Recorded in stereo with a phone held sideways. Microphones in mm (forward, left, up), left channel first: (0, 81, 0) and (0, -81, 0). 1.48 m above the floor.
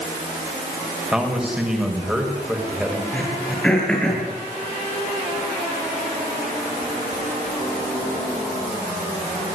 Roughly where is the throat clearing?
Centre.